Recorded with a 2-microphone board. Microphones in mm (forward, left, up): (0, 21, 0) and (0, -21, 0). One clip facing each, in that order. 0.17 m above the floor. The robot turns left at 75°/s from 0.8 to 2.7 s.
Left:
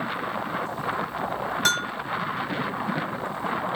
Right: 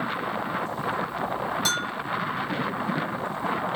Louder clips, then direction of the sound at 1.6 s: Left 3 dB; 60° left (ahead or behind).